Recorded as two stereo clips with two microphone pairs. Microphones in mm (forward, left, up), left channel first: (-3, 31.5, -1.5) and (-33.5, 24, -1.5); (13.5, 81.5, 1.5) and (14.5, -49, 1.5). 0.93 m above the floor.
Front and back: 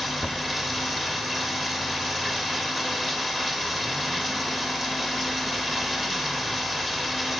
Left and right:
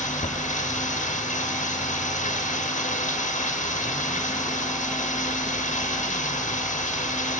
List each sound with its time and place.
0.0 s running water: 110° left, 1.3 m